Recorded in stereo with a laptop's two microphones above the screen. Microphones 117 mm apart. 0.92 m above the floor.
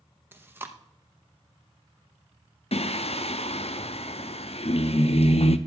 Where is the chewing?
20° right (ahead or behind), 0.8 m.